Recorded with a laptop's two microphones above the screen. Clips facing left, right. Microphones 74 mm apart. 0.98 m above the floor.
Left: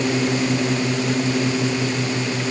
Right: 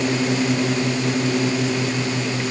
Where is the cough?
No cough in this recording.